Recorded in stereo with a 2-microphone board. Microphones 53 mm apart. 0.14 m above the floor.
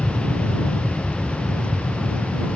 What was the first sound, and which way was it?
An aircraft, 15° left (ahead or behind).